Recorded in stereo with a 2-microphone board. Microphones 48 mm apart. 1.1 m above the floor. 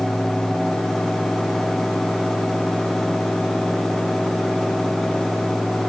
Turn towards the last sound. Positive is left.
No sound to turn to.